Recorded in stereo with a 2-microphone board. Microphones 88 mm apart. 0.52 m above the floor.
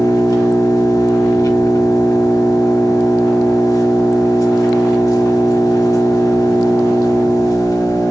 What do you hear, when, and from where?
0.0 s an engine running: 45° left (ahead or behind), 0.9 m